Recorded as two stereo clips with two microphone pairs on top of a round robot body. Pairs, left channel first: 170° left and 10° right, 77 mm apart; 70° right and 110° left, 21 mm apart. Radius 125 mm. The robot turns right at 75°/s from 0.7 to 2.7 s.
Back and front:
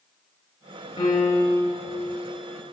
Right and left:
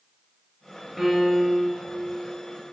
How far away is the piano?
About 4 m.